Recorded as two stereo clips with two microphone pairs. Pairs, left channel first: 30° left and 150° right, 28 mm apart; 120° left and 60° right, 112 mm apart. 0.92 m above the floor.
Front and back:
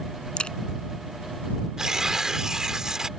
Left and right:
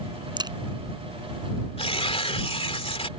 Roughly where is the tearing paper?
Behind left.